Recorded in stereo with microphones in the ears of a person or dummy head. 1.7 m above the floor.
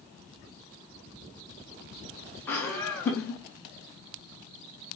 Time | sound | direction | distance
2.5 | laughter | 15° left (ahead or behind) | 1.4 m